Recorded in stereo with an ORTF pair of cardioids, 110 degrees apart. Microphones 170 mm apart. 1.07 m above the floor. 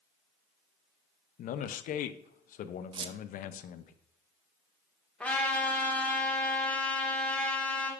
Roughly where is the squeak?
Ahead right.